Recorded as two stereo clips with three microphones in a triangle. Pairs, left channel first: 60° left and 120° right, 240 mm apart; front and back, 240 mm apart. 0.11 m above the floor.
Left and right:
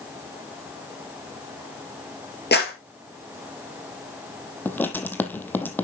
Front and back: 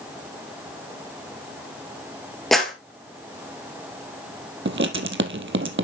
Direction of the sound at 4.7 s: 140° left.